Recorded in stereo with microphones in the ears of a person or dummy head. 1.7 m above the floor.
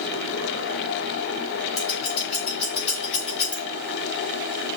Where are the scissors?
40° left (ahead or behind), 3 m.